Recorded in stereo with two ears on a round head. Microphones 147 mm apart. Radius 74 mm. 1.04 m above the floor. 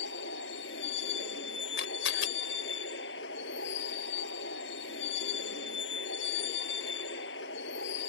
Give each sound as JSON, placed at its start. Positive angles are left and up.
{"t": 0.0, "sound": "a vehicle", "side_deg": 80}
{"t": 1.8, "sound": "a camera shutter", "side_deg": 85}